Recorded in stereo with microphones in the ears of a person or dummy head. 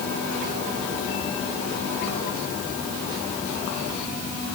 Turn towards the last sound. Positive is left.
No sound to turn to.